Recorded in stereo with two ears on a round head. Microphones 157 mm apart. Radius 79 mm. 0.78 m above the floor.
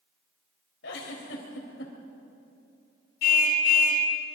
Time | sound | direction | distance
0.8 | a giggle | 80° left | 3.5 m
3.2 | a car horn | 55° left (ahead or behind) | 2.5 m